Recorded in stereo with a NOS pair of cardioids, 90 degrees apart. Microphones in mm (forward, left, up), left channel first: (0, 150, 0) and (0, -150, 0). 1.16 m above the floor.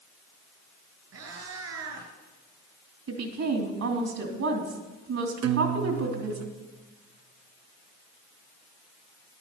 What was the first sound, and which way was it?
A cat meowing, 65° right.